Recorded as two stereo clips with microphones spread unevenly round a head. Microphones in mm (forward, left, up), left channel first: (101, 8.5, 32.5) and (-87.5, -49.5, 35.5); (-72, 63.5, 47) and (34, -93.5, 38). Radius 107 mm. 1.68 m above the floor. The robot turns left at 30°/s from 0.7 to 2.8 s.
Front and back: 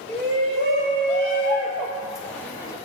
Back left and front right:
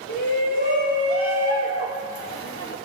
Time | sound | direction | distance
0.1 | a shout | 150° left | 3.5 m